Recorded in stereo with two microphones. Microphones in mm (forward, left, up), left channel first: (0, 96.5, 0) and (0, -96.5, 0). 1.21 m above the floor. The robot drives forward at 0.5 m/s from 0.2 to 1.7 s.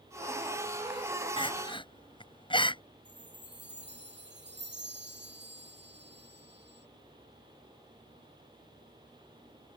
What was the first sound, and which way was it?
Crying, 25° left (ahead or behind).